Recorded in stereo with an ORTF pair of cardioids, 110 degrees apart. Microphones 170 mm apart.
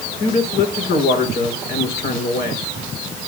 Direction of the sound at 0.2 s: 70° left.